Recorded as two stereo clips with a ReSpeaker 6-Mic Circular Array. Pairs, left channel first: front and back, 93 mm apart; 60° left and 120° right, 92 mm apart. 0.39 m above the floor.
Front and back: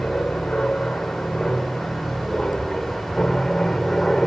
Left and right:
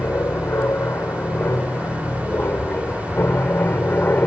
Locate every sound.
0.0 s an aircraft: 65° left; by 4.3 s 75° left